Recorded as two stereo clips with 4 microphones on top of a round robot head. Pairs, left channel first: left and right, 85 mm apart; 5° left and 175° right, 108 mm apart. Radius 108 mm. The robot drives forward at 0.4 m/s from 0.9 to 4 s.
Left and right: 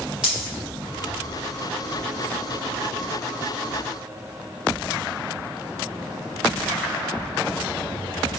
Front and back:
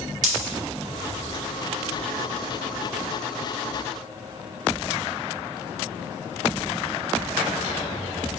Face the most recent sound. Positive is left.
turn(degrees=-175)